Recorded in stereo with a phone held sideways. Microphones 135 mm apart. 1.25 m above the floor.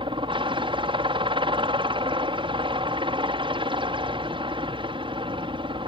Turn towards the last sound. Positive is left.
turn(degrees=-40)  # may be behind; listen again after turning